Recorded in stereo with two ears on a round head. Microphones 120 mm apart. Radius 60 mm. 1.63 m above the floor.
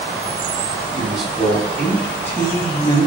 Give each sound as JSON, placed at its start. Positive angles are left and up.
{"t": 0.9, "sound": "a man speaking", "side_deg": -5, "distance_m": 4.5}